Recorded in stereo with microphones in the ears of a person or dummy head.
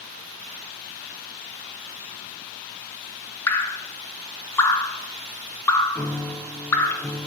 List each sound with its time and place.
3.5 s dripping: 15° left (ahead or behind), 1.0 m
6.0 s a piano: 10° left (ahead or behind), 0.5 m